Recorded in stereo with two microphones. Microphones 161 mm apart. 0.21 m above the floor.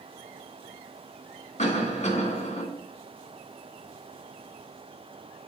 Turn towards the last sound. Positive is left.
turn(degrees=50)  # may be behind; listen again after turning